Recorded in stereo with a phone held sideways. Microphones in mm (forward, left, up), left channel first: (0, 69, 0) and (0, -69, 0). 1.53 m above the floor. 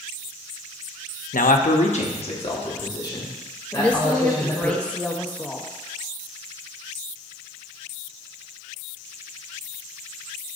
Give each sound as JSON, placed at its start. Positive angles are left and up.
{"t": 1.3, "sound": "a man speaking", "side_deg": 75, "distance_m": 0.7}
{"t": 3.7, "sound": "a woman speaking", "side_deg": 10, "distance_m": 1.0}